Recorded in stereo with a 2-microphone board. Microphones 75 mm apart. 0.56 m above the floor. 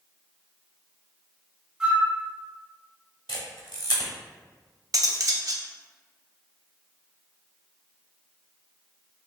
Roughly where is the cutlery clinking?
Right.